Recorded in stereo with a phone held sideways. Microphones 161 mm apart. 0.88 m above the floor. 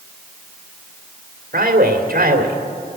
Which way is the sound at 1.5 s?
70° right (ahead or behind).